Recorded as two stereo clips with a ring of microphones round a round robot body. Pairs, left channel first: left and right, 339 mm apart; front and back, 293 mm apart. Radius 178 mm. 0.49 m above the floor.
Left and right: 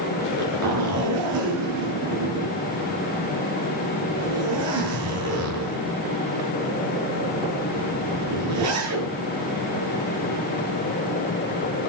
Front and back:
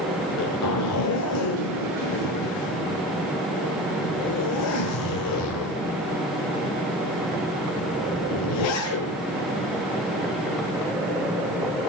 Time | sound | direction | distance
0.2 | a zipper | 45° right | 9 m